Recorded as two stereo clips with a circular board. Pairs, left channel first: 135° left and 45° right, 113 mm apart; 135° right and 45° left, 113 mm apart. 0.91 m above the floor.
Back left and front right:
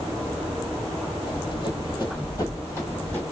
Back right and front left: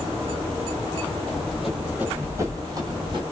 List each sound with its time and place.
1.3 s running footsteps: 145° left, 1.2 m; by 3.2 s 65° left, 1.4 m